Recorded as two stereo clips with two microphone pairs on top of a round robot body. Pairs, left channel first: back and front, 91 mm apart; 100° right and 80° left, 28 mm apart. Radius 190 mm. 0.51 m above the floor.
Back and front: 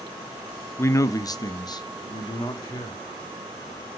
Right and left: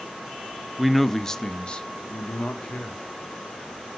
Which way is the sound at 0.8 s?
140° left.